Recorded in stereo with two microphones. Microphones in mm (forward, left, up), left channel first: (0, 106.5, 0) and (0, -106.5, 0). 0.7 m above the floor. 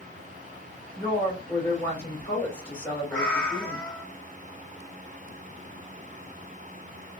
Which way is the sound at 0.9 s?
10° left (ahead or behind).